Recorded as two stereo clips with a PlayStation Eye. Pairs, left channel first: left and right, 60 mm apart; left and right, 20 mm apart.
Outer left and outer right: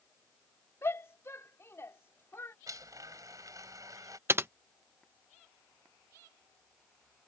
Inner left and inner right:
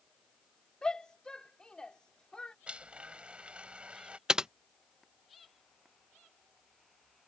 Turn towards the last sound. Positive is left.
turn(degrees=-40)  # may be behind; listen again after turning